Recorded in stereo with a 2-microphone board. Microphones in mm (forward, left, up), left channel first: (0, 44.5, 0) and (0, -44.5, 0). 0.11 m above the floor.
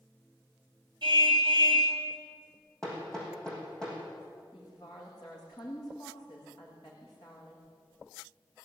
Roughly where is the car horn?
Right.